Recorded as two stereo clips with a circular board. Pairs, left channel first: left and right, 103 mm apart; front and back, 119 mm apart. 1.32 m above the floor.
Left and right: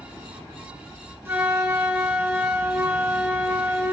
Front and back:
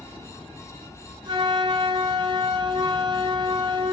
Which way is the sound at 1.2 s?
150° right.